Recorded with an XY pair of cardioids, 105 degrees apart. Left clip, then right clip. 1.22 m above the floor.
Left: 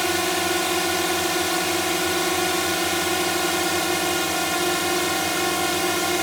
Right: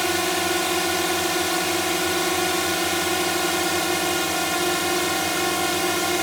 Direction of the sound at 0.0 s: Straight ahead.